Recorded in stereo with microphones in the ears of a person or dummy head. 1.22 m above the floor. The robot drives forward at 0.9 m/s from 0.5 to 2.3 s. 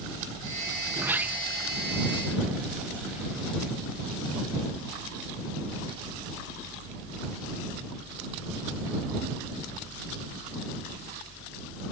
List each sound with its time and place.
0.9 s a sliding door: 20° right (ahead or behind); by 3.8 s 5° right (ahead or behind)